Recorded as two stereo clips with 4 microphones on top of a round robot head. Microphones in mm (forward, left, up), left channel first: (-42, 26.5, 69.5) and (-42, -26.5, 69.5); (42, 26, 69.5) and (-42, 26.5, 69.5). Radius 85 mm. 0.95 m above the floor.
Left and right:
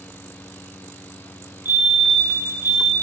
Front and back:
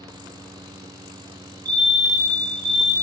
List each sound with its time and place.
1.6 s a fire alarm: 140° right, 6.5 m